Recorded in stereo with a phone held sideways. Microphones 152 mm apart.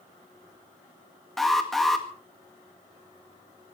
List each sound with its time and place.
1.4 s an alarm: centre (ahead or behind), 2 m